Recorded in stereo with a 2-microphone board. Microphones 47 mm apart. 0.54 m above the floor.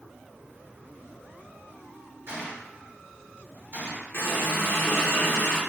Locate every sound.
2.3 s a gunshot: 55° right (ahead or behind), 1.6 m
4.1 s a running tap: 55° left (ahead or behind), 0.8 m